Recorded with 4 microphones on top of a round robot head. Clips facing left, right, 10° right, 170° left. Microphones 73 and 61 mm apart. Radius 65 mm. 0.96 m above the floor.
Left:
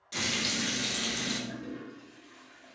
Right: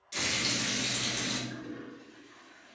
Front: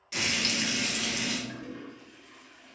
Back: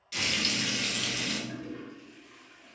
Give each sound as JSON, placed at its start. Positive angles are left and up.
{"t": 0.1, "sound": "frying", "azimuth_deg": 55, "distance_m": 1.1}
{"t": 1.5, "sound": "a toilet flushing", "azimuth_deg": 85, "distance_m": 1.7}